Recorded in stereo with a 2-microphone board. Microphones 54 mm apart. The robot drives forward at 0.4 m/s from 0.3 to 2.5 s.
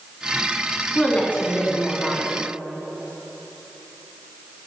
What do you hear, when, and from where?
0.9 s a woman speaking: 25° left (ahead or behind), 2 m; by 2.3 s 30° left (ahead or behind), 1.9 m